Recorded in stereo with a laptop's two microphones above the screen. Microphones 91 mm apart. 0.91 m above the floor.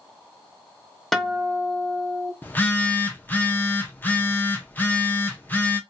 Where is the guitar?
Centre (ahead or behind), 0.6 m.